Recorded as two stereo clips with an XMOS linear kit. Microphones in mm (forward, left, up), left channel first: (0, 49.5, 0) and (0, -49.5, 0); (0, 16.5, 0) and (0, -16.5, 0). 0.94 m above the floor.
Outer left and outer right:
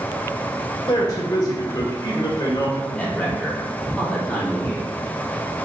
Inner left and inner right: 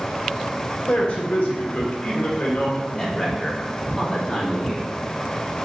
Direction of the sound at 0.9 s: 40° left (ahead or behind).